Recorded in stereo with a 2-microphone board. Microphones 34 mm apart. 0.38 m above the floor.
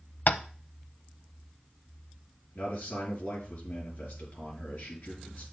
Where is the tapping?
60° left (ahead or behind), 0.6 m.